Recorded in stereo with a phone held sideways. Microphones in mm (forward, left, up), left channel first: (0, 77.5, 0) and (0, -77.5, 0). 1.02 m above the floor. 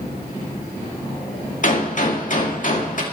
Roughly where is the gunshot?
Left.